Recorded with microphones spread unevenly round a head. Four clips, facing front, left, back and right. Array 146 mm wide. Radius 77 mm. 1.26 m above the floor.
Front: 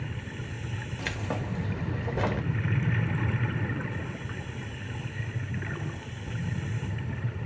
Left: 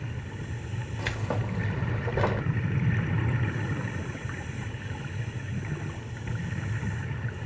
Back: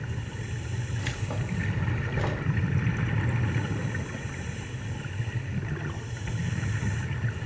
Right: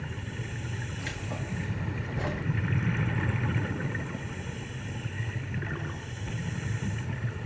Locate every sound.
1.0 s keys jangling: 60° left, 1.4 m